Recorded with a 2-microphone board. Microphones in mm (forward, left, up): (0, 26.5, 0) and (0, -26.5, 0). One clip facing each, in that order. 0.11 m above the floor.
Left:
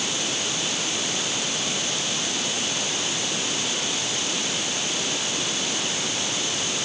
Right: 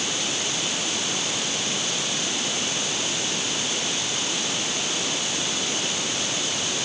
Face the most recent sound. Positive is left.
No sound to turn to.